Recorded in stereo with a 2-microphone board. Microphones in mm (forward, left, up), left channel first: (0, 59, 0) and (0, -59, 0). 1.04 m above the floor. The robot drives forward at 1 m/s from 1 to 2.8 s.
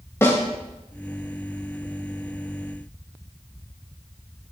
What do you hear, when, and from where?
0.2 s a snare drum: 20° left (ahead or behind), 2 m